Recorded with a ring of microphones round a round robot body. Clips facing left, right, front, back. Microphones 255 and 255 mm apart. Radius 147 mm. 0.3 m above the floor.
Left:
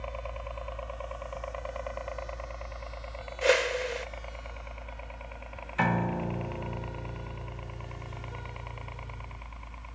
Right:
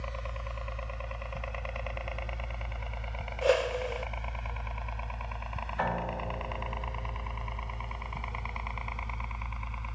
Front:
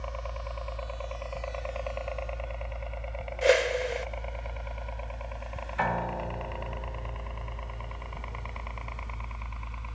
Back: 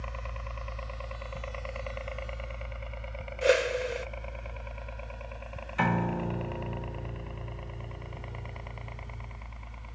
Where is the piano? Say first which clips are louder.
Left 6 dB, back 4 dB; 140° left.